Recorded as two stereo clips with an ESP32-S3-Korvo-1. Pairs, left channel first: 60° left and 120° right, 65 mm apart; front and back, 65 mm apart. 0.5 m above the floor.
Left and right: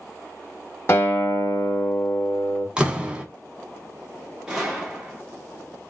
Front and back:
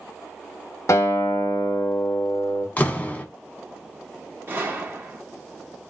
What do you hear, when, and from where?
0.9 s a guitar: 20° left, 1.1 m
2.8 s a door slam: 55° right, 1.0 m
4.5 s a gunshot: 170° left, 1.4 m